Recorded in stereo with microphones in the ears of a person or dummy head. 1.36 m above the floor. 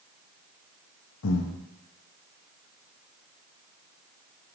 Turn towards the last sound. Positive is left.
turn(degrees=75)  # may be behind; listen again after turning